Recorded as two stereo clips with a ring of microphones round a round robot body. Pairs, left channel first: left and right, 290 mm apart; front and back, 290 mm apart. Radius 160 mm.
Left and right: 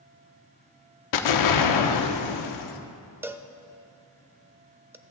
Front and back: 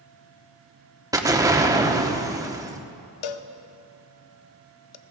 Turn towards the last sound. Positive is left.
turn(degrees=-5)